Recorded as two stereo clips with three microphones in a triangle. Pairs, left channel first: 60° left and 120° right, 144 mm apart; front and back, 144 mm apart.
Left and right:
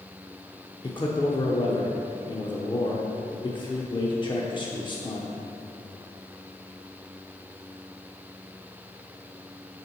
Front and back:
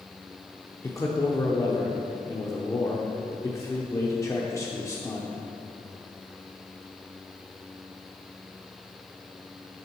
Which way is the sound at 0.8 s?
50° left.